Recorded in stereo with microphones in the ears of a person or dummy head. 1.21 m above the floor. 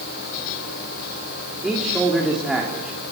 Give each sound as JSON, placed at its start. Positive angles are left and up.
{"t": 1.6, "sound": "a man speaking", "side_deg": -5, "distance_m": 3.0}